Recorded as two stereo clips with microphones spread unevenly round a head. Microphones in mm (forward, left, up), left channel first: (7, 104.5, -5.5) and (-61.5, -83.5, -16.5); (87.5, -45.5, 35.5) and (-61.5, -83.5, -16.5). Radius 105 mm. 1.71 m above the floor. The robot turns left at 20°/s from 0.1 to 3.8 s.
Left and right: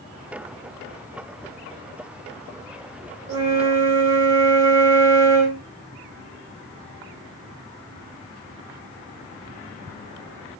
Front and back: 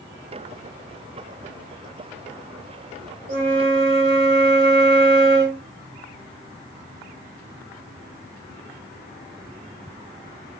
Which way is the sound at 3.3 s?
135° right.